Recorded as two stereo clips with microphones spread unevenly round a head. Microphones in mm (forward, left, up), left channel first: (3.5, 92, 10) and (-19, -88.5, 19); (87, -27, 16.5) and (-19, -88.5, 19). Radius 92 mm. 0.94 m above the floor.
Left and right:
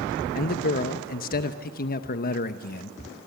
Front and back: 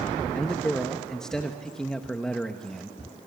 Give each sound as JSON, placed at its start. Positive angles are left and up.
{"t": 0.3, "sound": "a man speaking", "azimuth_deg": 115, "distance_m": 0.8}